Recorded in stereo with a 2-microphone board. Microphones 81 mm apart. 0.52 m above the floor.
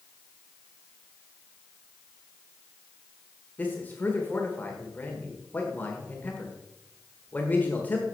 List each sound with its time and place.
3.6 s a man speaking: 20° left (ahead or behind), 1.4 m